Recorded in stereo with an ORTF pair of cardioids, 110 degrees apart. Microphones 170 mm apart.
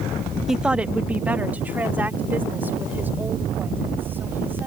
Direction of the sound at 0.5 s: 5° right.